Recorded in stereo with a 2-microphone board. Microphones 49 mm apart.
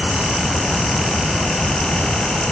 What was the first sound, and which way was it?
Only background noise.